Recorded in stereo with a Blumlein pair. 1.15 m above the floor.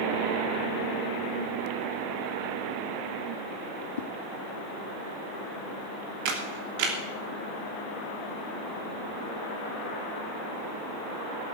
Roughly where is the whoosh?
Ahead left.